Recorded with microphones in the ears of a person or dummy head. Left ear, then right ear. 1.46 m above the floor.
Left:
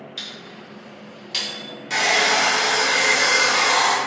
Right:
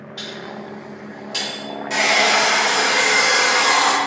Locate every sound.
0.2 s a microwave: 30° left (ahead or behind), 1.3 m
1.9 s a hair dryer: 15° left (ahead or behind), 0.9 m